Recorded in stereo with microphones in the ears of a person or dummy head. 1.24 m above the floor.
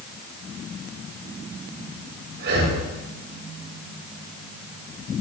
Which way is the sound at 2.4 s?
60° right (ahead or behind).